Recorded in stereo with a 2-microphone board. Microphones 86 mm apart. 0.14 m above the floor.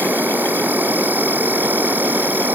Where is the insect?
20° right (ahead or behind).